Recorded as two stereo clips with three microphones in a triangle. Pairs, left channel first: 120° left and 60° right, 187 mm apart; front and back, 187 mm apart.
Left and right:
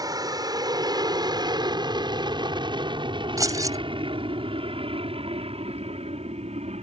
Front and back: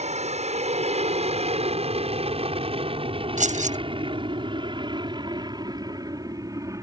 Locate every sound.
0.0 s an aircraft: 130° right; by 6.8 s 110° right
3.4 s keys jangling: 130° right